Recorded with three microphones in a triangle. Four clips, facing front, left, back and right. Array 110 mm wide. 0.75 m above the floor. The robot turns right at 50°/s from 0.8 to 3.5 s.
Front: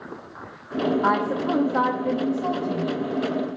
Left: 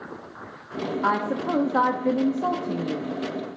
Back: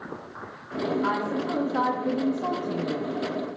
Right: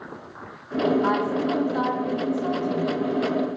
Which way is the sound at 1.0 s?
25° left.